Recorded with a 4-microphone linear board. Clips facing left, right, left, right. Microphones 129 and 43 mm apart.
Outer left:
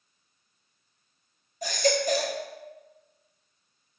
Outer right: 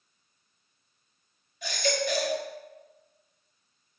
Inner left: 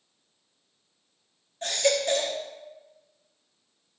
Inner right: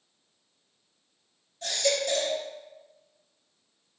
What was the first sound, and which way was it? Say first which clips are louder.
A baby crying: outer left 4 dB, inner left 3 dB; 40° left (ahead or behind).